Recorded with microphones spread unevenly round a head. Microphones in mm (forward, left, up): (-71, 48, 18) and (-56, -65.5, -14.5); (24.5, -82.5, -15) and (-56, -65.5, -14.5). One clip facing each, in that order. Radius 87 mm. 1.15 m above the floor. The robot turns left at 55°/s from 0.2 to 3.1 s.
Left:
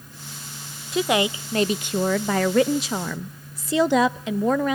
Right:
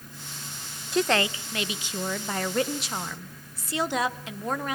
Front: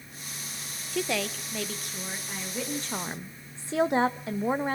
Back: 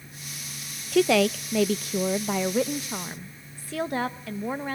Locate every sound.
0.9 s a woman speaking: 170° right, 0.6 m; by 4.8 s 70° left, 0.6 m